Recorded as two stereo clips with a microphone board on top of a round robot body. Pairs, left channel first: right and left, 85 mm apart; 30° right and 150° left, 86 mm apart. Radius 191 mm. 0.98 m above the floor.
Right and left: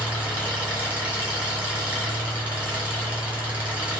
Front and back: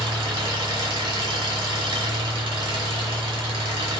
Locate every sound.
0.0 s an engine running: 165° left, 4.5 m